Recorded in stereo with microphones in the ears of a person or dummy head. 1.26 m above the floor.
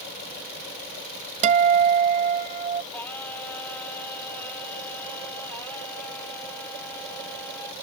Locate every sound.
1.4 s a guitar: 40° right (ahead or behind)
2.9 s singing: 10° left (ahead or behind)